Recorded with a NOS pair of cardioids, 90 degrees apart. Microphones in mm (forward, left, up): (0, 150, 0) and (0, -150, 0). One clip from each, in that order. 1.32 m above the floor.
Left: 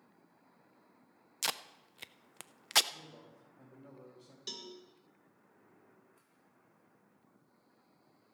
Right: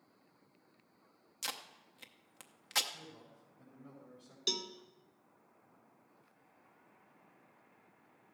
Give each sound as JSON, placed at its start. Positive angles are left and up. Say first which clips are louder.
{"t": 1.4, "sound": "tape being pulled", "louder": "left 5 dB", "azimuth_deg": 30, "distance_m": 0.6}
{"t": 2.9, "sound": "a man speaking", "louder": "even", "azimuth_deg": 20, "distance_m": 5.5}
{"t": 4.5, "sound": "a cowbell", "louder": "right 9 dB", "azimuth_deg": -35, "distance_m": 1.4}